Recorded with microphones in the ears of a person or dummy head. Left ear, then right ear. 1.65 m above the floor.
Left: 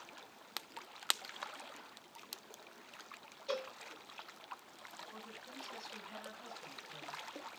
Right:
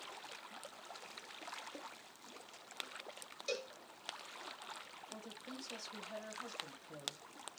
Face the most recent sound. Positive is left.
turn(degrees=-80)